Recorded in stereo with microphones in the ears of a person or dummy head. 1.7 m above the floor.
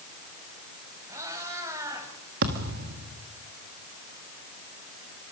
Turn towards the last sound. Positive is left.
turn(degrees=-40)  # may be behind; listen again after turning